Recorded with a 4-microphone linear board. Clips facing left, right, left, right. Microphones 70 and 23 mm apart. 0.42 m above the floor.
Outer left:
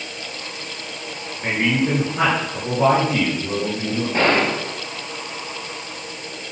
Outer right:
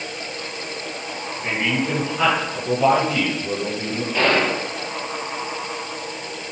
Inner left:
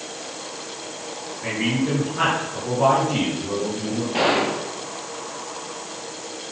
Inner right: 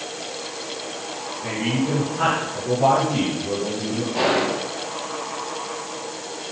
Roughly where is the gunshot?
Left.